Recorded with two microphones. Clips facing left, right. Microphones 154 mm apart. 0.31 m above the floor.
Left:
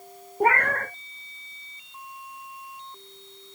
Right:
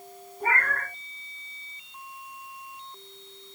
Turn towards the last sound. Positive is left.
turn(degrees=75)  # may be behind; listen again after turning